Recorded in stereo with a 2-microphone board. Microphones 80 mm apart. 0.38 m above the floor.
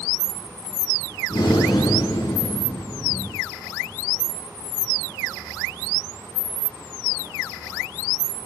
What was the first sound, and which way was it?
Breathing, 60° left (ahead or behind).